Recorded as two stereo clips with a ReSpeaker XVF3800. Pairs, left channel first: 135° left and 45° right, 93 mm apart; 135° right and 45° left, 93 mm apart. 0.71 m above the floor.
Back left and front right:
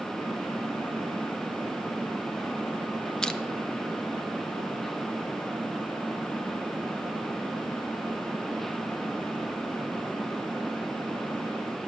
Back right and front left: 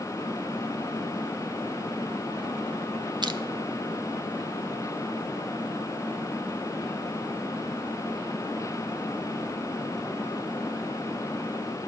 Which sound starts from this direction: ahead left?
Crushing, at 3.2 s.